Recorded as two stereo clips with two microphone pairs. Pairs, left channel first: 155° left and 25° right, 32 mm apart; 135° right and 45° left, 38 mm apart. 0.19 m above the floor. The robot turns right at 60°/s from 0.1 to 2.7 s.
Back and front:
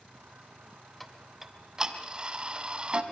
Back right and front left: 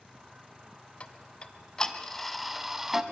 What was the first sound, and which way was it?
Ticking, 125° right.